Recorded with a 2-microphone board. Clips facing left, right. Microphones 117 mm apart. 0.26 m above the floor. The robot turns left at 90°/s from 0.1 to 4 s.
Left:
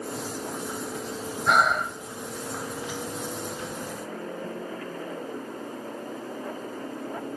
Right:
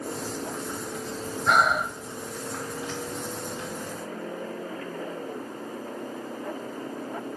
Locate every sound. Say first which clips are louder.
1.5 s breathing: even; 5° left (ahead or behind), 1.1 m; by 2.0 s 15° right (ahead or behind), 1.1 m